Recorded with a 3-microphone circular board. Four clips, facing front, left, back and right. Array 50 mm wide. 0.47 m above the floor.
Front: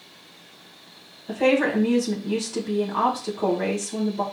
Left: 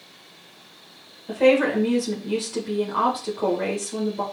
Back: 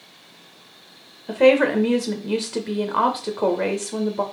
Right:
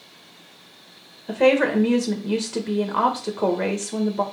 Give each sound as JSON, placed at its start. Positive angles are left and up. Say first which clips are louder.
{"t": 1.3, "sound": "a woman speaking", "louder": "even, back 5 dB", "azimuth_deg": -150, "distance_m": 1.8}